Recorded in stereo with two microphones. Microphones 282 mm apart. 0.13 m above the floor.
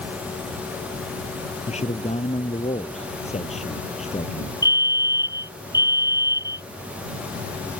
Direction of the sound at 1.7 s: 25° left (ahead or behind).